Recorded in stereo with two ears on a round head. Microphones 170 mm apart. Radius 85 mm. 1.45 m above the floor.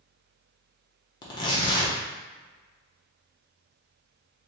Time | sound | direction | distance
1.2 | tearing paper | 25° left (ahead or behind) | 0.7 m